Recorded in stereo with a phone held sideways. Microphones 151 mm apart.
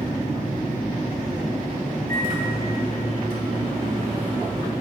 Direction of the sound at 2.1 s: 80° right.